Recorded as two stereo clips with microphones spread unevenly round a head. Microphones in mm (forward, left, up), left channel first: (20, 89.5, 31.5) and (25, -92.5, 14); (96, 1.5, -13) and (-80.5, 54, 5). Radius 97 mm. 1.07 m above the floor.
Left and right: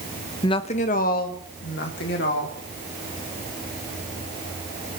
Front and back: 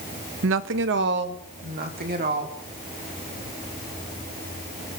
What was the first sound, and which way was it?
A woman speaking, 160° left.